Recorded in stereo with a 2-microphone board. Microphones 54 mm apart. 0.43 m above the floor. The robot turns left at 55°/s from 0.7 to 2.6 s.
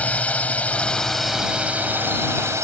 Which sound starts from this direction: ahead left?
A drone, at 0.0 s.